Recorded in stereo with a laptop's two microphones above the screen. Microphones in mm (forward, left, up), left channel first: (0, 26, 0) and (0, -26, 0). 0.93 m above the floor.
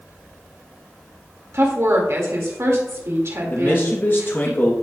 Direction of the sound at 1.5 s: 65° right (ahead or behind).